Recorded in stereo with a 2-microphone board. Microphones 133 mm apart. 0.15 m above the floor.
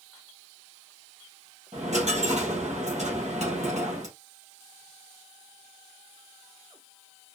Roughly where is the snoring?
I don't hear snoring.